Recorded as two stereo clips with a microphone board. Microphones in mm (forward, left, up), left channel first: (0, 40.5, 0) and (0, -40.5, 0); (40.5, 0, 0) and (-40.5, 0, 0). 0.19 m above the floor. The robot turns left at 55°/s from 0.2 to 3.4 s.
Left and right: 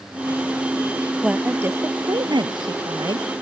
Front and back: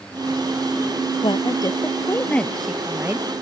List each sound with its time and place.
1.2 s a woman speaking: 10° right; by 3.3 s 125° right